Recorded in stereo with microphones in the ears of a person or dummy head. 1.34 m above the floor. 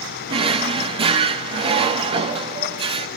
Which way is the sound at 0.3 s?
35° right (ahead or behind).